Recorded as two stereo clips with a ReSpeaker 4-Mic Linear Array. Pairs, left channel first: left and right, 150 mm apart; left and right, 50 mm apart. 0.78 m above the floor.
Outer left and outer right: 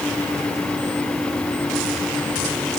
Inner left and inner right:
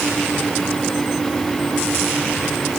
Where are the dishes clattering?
No dishes clattering in this recording.